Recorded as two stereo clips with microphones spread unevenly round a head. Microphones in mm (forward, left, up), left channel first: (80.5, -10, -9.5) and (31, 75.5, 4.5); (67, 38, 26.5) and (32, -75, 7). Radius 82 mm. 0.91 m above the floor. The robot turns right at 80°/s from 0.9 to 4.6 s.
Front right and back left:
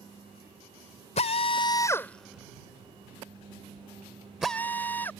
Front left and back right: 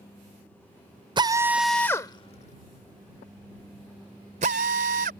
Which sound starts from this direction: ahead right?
A drill, at 1.2 s.